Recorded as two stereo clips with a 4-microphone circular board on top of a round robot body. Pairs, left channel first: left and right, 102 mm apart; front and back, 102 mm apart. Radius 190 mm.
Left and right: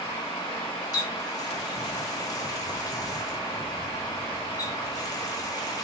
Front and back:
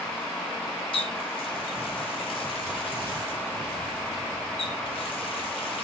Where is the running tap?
35° left, 1.3 m.